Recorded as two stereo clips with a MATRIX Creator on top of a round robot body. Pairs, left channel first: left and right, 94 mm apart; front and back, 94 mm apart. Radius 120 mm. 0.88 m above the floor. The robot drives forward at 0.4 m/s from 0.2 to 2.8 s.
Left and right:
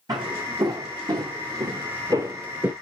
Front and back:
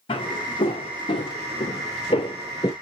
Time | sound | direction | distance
0.1 | footsteps | 40° right | 3 m